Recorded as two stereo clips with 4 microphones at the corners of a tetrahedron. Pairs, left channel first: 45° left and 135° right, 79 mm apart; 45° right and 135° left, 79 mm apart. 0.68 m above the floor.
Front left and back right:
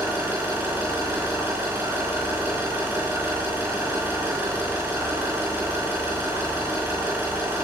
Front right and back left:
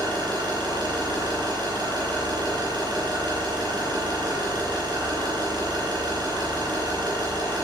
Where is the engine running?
160° left, 9 m.